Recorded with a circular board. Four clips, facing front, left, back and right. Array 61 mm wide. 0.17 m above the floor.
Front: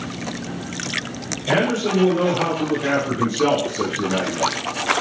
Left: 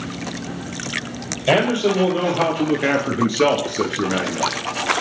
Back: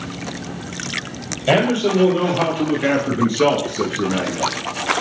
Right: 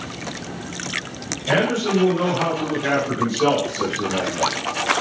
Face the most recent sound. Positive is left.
turn(degrees=90)